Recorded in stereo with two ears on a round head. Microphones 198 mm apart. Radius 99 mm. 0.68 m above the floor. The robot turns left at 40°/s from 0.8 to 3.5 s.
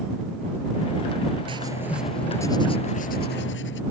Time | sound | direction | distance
1.5 | writing | 155° right | ?